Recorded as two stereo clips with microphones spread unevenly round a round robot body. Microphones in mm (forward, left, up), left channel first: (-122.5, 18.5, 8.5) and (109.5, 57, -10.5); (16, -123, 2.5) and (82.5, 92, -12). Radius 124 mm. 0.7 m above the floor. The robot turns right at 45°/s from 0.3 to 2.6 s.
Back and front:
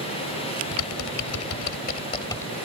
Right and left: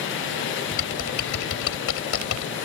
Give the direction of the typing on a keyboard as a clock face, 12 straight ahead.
6 o'clock.